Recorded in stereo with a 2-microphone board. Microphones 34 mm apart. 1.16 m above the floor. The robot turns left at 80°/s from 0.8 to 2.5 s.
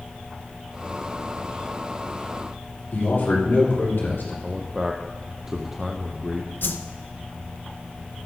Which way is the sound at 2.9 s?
85° left.